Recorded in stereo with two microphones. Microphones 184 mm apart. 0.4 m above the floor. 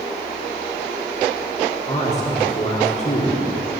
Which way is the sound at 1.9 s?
40° left (ahead or behind).